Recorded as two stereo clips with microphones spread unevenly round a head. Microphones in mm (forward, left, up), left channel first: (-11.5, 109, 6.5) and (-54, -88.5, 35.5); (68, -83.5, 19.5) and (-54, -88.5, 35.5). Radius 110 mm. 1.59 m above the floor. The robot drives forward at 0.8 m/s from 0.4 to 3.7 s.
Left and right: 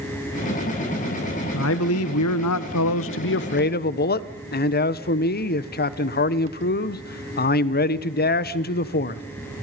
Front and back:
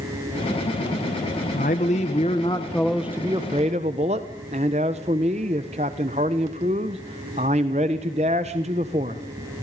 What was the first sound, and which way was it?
A man speaking, 45° left.